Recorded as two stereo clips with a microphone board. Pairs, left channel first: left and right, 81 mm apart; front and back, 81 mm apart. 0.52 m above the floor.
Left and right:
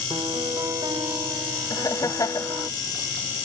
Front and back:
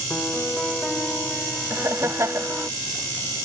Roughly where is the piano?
Right.